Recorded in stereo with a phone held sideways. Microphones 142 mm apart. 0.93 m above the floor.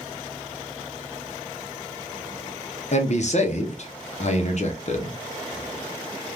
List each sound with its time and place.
2.9 s a man speaking: 55° left (ahead or behind), 0.8 m